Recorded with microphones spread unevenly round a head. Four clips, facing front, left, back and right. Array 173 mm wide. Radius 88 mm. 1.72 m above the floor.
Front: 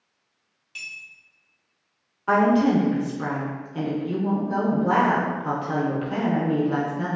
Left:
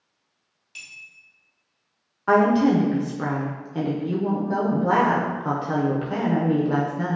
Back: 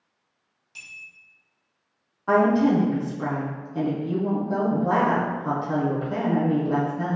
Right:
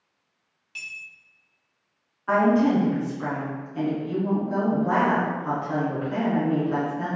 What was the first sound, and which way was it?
A clink, 110° right.